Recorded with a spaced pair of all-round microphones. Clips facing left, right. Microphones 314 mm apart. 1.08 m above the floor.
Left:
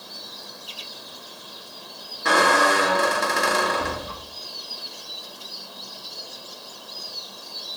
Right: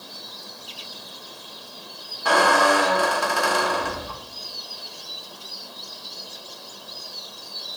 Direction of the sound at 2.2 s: 25° left (ahead or behind).